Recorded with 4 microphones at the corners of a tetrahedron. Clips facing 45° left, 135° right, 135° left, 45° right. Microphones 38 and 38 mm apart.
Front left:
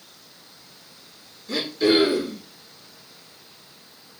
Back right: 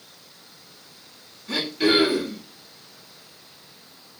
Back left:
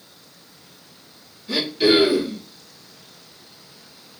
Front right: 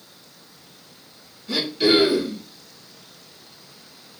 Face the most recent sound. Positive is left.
turn(degrees=-140)